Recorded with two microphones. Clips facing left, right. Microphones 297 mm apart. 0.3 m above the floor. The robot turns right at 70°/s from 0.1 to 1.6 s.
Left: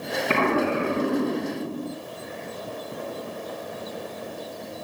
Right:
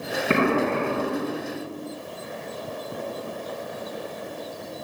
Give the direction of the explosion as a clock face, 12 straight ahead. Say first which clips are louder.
Right 2 dB; 1 o'clock.